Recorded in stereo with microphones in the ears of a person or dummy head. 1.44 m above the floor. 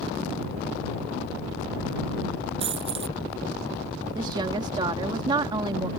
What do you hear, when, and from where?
2.6 s a dropped coin: 35° right (ahead or behind)
4.2 s a woman speaking: 25° right (ahead or behind)